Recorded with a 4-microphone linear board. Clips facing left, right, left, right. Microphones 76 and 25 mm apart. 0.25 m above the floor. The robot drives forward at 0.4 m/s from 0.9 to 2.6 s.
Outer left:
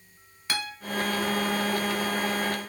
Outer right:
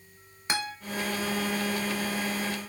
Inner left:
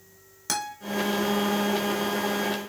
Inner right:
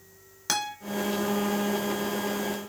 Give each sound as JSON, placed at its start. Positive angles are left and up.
{"t": 0.5, "sound": "a guitar", "side_deg": -20, "distance_m": 0.6}